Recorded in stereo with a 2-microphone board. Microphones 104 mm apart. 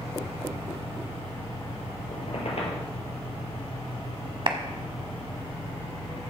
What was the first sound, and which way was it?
A squeak, 65° left (ahead or behind).